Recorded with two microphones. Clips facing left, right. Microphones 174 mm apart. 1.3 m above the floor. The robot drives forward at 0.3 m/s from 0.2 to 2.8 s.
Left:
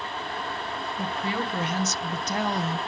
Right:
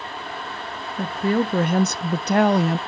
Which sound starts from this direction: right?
A woman speaking, at 1.0 s.